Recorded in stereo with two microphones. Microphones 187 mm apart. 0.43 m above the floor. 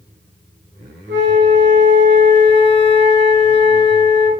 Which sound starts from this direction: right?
A flute, at 1.1 s.